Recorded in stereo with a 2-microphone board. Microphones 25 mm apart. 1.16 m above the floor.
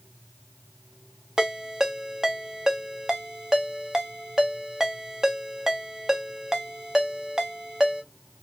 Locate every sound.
1.4 s a ringtone: 25° right (ahead or behind), 0.6 m